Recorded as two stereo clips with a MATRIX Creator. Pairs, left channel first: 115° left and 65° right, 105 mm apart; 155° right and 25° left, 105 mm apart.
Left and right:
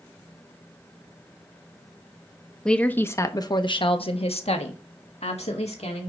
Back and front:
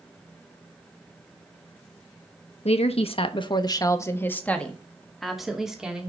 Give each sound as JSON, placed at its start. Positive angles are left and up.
{"t": 2.6, "sound": "a woman speaking", "azimuth_deg": -165, "distance_m": 1.2}